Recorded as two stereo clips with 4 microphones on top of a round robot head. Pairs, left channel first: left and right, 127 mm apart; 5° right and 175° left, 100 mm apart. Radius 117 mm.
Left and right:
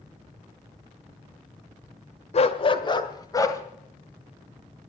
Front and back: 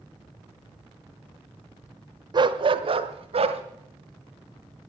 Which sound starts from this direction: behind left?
A dog barking, at 2.3 s.